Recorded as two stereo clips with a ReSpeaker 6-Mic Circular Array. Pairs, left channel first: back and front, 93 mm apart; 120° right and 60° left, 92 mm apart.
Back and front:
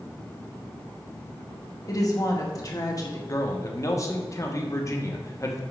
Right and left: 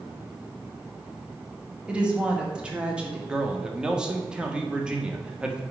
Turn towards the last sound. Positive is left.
turn(degrees=140)